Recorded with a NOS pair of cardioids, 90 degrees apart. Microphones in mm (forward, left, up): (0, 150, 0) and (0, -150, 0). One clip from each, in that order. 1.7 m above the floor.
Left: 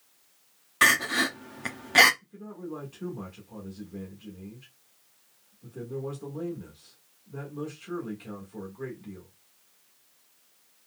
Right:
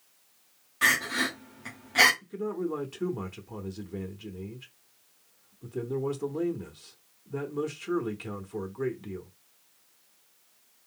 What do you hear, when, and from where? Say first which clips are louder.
0.8 s crying: left 3 dB; 60° left, 0.9 m
2.2 s a man speaking: right 10 dB; 45° right, 1.3 m